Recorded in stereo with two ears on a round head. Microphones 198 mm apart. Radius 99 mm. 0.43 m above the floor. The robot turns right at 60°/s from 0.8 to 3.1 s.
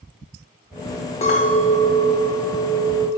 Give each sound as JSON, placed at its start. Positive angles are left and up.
{"t": 1.2, "sound": "a clink", "side_deg": 25, "distance_m": 0.8}